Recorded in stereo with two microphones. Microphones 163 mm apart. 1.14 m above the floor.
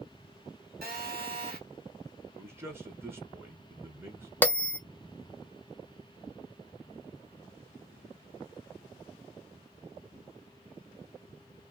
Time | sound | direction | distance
0.8 | a phone buzzing | 65° right (ahead or behind) | 1.2 m
2.3 | a man speaking | 15° right (ahead or behind) | 0.7 m
4.4 | a bell | 10° left (ahead or behind) | 0.7 m